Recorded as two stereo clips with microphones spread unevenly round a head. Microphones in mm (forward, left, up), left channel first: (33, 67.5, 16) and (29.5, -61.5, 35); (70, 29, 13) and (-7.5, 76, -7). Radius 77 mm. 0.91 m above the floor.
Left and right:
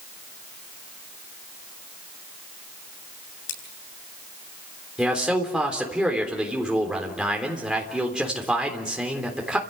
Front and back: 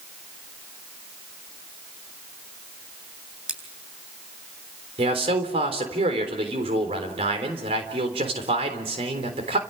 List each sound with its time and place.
3.5 s scissors: 70° left, 8.5 m
5.0 s a man speaking: 175° right, 3.5 m